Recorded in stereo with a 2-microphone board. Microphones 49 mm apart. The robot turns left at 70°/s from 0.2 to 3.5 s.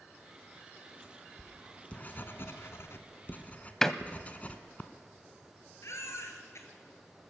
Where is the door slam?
10° left (ahead or behind), 0.6 m.